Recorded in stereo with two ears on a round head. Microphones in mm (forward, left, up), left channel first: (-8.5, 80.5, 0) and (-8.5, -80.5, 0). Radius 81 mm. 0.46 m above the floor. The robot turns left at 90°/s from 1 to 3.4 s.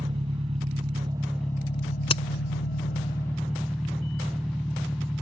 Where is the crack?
30° left (ahead or behind); by 2.2 s 45° left (ahead or behind).